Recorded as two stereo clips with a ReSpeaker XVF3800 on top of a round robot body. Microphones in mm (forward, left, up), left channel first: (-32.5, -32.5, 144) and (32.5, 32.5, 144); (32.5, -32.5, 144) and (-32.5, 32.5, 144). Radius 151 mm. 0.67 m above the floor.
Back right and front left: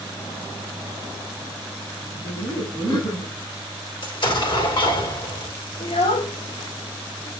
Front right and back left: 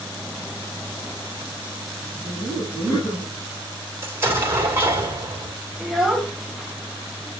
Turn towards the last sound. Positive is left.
turn(degrees=-140)